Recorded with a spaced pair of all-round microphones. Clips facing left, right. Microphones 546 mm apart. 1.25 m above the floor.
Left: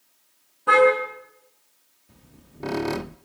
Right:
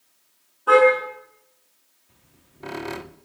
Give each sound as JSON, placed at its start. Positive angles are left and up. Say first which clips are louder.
{"t": 0.7, "sound": "a car horn", "louder": "right 3 dB", "side_deg": 45, "distance_m": 8.0}
{"t": 2.1, "sound": "a squeak", "louder": "left 8 dB", "side_deg": 65, "distance_m": 0.6}